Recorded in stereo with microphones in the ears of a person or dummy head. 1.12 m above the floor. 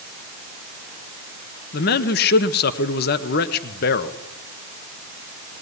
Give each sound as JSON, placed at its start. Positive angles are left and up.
{"t": 1.7, "sound": "a man speaking", "side_deg": 55, "distance_m": 1.3}